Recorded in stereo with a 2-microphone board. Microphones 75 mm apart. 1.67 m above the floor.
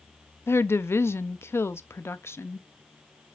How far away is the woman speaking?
About 0.6 m.